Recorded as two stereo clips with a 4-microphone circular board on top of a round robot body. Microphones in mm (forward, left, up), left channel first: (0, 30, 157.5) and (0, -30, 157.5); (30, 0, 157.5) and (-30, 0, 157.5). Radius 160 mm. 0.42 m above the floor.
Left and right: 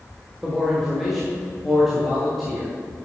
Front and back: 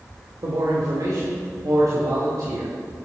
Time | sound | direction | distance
0.4 | a man speaking | 175° right | 2.0 m